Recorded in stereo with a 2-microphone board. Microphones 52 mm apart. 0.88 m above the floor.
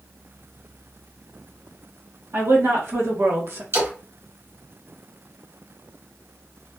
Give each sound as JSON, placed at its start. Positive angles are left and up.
{"t": 2.3, "sound": "a woman speaking", "side_deg": -65, "distance_m": 1.4}
{"t": 3.7, "sound": "a splash", "side_deg": -60, "distance_m": 1.5}